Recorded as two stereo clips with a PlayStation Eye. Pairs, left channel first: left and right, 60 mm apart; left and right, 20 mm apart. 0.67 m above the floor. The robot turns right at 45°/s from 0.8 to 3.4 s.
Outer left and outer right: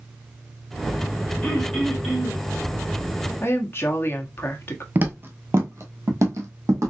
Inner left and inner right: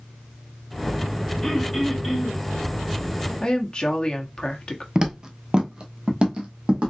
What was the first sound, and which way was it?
Throat clearing, 160° left.